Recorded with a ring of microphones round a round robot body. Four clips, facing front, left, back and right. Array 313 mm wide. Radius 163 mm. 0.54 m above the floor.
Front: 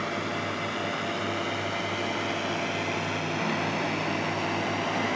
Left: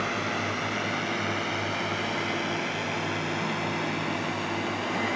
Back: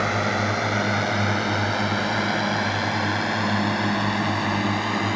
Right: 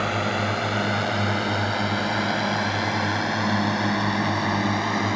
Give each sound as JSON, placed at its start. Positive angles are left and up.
{"t": 0.0, "sound": "a drone", "azimuth_deg": -145}